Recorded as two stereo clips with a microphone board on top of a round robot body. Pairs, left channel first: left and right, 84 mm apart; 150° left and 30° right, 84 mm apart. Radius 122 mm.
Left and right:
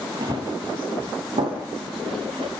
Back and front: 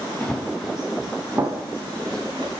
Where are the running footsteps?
130° right, 1.7 m; by 2.5 s 75° right, 2 m.